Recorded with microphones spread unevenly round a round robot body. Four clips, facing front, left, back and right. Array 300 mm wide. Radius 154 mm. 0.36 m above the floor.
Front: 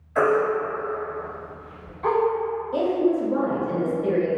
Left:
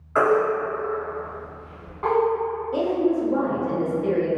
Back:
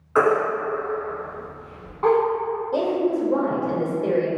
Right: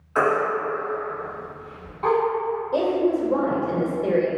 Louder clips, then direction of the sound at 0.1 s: Left 2 dB, back 1 dB; 165° left.